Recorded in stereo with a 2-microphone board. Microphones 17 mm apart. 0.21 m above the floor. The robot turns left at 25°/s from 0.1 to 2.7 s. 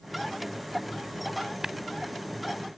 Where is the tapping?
30° right (ahead or behind).